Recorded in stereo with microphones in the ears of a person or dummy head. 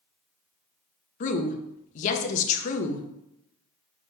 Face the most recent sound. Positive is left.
turn(degrees=45)  # may be behind; listen again after turning